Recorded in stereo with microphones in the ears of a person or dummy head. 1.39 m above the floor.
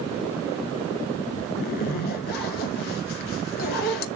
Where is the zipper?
50° left (ahead or behind), 0.7 m.